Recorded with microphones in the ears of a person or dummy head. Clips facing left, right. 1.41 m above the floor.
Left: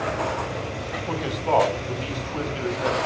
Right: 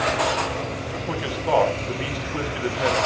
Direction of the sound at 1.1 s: 10° right (ahead or behind).